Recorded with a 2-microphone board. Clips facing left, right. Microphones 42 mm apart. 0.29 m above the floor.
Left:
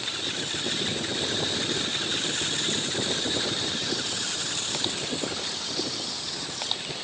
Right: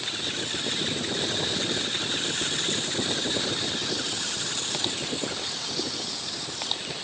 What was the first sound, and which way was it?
Only background noise.